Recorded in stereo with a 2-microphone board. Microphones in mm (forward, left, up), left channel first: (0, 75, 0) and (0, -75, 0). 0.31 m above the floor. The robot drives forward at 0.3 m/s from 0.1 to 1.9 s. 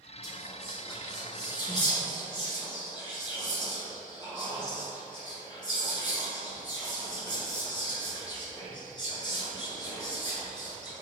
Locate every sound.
0.2 s whispering: 25° left (ahead or behind), 1.4 m; by 11.0 s 30° left (ahead or behind), 1.3 m